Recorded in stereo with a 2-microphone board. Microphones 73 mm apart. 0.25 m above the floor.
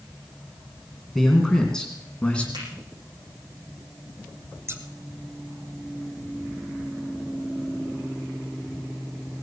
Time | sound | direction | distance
1.1 | a man speaking | 5° left (ahead or behind) | 3 m
2.5 | a finger snap | 80° right | 9 m
4.7 | scissors | 35° right (ahead or behind) | 1.3 m